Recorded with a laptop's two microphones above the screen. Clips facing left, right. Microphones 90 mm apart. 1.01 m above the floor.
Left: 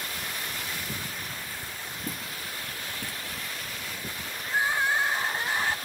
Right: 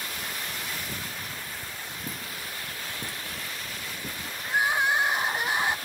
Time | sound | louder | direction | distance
2.1 | footsteps | left 2 dB | centre (ahead or behind) | 2.0 m
4.4 | crying | right 2 dB | 15° right (ahead or behind) | 0.6 m